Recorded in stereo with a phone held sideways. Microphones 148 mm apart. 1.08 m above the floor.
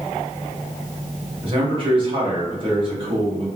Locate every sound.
1.4 s a man speaking: 35° right (ahead or behind), 1.1 m